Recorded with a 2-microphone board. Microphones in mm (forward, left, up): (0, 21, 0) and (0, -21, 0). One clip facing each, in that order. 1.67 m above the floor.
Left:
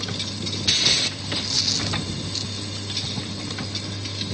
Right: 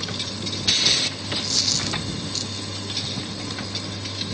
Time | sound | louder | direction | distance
1.4 | a dropped coin | even | 5° left (ahead or behind) | ?